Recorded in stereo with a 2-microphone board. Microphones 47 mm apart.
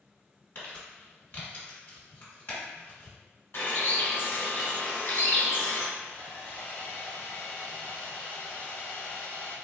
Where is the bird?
55° left (ahead or behind), 1.1 m.